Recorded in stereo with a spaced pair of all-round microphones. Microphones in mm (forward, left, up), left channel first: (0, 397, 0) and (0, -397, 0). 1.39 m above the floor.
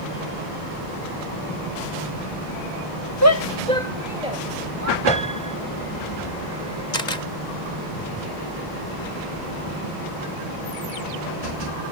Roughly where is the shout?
Left.